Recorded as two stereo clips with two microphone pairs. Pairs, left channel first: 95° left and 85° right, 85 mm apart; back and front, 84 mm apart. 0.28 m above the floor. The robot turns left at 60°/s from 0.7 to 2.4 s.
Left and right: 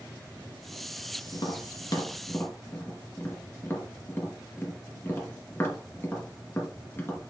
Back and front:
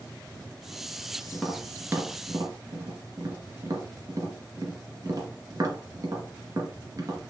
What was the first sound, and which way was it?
Tapping, 105° left.